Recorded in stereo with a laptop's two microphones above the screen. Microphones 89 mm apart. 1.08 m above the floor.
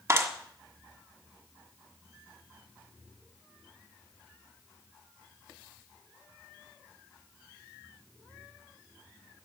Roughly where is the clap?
Right.